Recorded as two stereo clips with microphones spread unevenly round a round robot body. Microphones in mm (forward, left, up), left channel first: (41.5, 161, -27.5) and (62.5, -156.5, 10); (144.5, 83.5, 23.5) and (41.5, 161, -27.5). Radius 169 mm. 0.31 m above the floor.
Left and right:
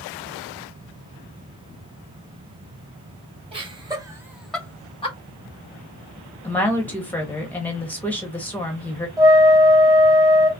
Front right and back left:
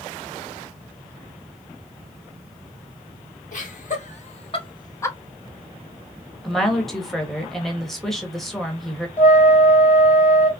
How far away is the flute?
About 1.2 m.